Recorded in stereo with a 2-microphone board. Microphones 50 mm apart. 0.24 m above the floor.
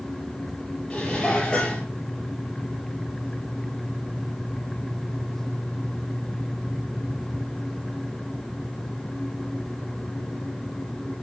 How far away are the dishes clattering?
About 4.5 m.